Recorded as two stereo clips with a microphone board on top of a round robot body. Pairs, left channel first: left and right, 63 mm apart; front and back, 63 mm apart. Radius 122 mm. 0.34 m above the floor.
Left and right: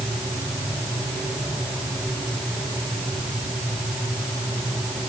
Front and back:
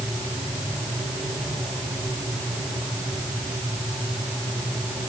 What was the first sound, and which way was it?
Only background noise.